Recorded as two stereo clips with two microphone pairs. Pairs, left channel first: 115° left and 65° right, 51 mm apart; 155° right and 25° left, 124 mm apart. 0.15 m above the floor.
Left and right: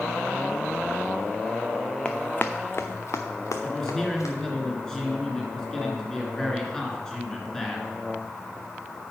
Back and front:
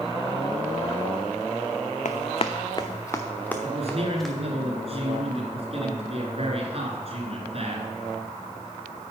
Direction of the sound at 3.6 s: 40° left.